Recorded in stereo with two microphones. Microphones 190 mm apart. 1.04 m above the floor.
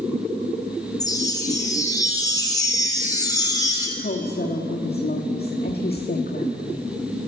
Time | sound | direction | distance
1.0 | a chime | 20° left (ahead or behind) | 5.5 m
4.0 | a woman speaking | 60° left (ahead or behind) | 1.7 m